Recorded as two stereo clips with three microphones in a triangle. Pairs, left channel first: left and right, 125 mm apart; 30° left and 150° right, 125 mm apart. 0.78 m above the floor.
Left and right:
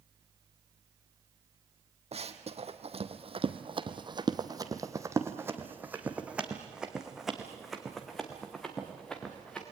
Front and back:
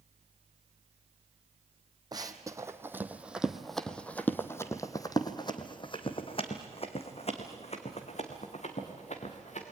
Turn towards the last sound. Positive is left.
turn(degrees=5)